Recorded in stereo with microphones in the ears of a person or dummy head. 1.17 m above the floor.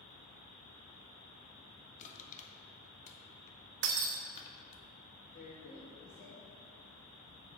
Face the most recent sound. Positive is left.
turn(degrees=40)  # may be behind; listen again after turning